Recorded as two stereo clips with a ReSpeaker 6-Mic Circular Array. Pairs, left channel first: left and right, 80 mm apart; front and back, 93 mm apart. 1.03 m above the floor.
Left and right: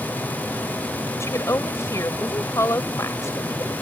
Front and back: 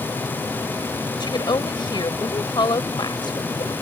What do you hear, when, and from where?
1.2 s a woman speaking: 35° left